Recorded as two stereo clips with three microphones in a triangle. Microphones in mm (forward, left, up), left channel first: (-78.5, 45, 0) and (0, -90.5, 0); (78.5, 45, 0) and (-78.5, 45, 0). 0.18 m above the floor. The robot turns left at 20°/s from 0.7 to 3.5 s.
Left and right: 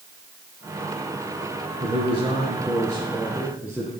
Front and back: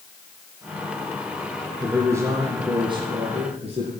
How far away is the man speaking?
About 2 m.